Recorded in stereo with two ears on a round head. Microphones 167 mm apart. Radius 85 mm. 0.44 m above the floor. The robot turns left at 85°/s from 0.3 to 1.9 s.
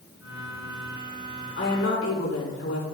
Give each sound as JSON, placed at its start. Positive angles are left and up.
{"t": 1.6, "sound": "a woman speaking", "side_deg": 60, "distance_m": 5.0}